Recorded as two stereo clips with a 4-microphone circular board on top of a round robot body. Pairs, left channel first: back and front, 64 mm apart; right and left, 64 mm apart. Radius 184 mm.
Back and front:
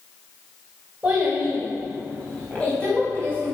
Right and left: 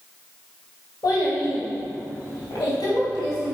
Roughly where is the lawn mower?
No lawn mower in this recording.